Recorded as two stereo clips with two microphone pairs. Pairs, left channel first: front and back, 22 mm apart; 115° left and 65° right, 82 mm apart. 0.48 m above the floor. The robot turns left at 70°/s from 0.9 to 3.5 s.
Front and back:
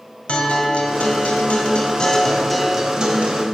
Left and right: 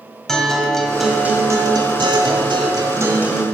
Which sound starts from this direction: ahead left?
A guitar, at 0.3 s.